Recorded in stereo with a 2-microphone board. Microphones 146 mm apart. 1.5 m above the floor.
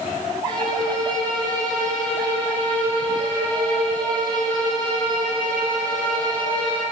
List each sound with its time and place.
0.5 s a violin: 35° right (ahead or behind), 6.5 m